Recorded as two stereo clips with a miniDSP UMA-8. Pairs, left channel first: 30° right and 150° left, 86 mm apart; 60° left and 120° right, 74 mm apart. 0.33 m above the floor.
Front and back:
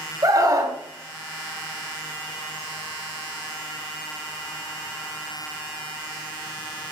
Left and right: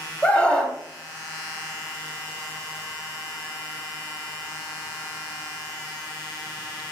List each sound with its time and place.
0.2 s a scream: 130° left, 2.5 m